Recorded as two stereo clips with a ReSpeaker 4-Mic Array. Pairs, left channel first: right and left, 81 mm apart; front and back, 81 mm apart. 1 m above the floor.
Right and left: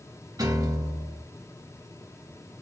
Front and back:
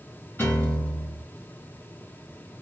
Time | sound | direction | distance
0.4 | a piano | 65° left | 2.5 m